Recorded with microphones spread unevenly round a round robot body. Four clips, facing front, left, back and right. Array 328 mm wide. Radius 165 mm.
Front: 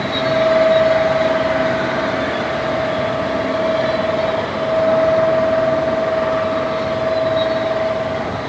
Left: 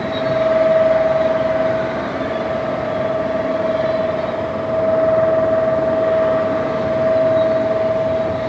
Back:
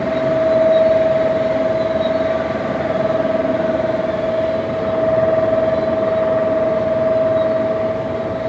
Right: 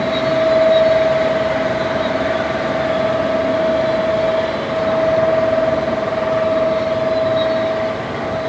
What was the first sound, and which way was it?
Only background noise.